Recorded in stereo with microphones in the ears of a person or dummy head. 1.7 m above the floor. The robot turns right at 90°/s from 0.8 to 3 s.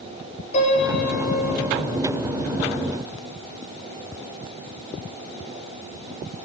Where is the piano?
40° left, 4.5 m; by 1.6 s 115° left, 4.5 m.